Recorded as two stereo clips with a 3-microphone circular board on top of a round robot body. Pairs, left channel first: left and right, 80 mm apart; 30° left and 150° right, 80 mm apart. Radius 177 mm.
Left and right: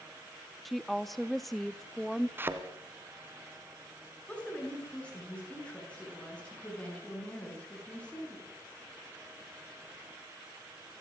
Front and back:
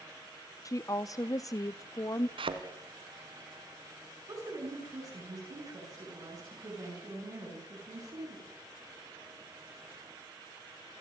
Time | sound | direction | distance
0.7 | a woman speaking | straight ahead | 0.9 m
2.4 | a thud | 155° right | 1.9 m
4.3 | a woman speaking | 165° left | 8.5 m